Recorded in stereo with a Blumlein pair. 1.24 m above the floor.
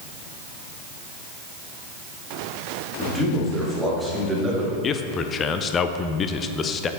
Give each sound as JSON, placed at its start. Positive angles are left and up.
{"t": 3.0, "sound": "a man speaking", "azimuth_deg": 5, "distance_m": 2.5}
{"t": 4.8, "sound": "a man speaking", "azimuth_deg": 25, "distance_m": 0.5}